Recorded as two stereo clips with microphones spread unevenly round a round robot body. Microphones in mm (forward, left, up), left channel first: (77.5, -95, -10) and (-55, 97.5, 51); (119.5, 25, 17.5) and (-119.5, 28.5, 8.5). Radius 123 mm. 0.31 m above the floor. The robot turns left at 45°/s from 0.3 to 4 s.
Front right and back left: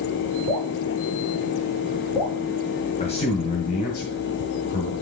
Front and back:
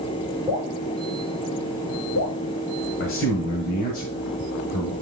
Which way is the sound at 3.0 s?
5° right.